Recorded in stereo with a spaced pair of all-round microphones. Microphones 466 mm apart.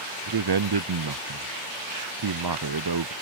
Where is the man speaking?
55° right (ahead or behind).